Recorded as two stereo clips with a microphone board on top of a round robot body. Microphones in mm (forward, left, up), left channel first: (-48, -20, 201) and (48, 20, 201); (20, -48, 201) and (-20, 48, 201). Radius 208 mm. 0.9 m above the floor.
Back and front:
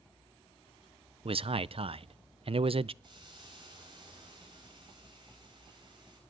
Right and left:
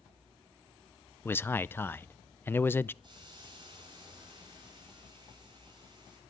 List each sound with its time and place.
1.2 s a man speaking: straight ahead, 0.5 m
3.0 s a hiss: 65° left, 8 m